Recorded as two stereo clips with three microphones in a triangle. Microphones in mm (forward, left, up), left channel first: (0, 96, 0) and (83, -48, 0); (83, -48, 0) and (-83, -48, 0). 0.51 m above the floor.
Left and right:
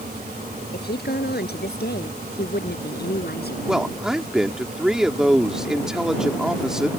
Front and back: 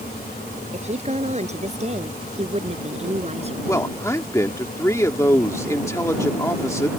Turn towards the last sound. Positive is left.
turn(degrees=20)